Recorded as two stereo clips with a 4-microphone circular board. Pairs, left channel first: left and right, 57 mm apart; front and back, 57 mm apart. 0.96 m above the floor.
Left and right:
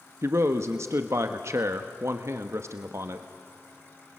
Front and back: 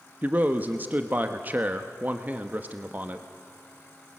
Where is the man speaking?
125° right, 1.1 m.